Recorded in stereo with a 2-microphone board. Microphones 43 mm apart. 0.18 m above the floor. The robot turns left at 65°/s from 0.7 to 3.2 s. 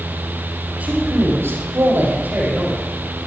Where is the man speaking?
35° right, 7.5 m; by 2.8 s 165° right, 7.5 m.